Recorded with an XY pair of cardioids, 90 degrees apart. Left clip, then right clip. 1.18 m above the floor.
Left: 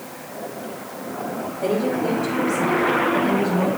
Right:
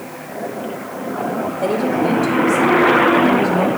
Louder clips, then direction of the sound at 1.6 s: Right 3 dB; 65° right.